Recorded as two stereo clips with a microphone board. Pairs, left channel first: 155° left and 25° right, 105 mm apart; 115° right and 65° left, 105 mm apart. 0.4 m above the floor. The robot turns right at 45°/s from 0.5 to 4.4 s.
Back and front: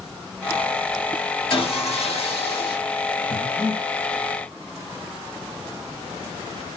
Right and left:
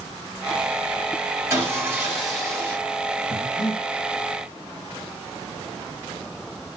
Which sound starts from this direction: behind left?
Sawing, at 1.5 s.